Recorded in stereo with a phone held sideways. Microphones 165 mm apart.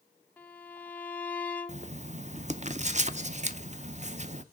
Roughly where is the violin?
Centre.